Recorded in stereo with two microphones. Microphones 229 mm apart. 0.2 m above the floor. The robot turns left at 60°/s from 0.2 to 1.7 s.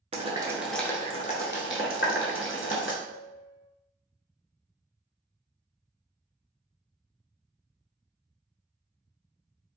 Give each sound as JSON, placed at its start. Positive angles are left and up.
{"t": 0.1, "sound": "boiling", "side_deg": -30, "distance_m": 0.6}
{"t": 3.0, "sound": "a piano", "side_deg": -45, "distance_m": 1.1}